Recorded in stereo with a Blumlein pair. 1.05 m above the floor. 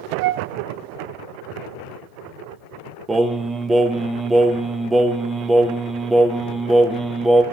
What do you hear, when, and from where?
0.2 s a flute: 45° right, 0.6 m
3.1 s singing: 10° right, 0.7 m